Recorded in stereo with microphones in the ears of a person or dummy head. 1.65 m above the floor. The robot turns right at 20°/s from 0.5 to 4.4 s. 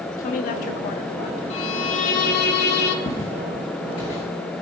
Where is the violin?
35° left (ahead or behind), 1.1 m; by 3.0 s 65° left (ahead or behind), 1.1 m.